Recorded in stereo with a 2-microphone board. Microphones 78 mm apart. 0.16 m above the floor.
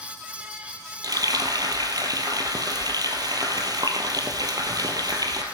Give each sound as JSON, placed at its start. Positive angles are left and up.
{"t": 1.0, "sound": "frying", "side_deg": -55, "distance_m": 1.8}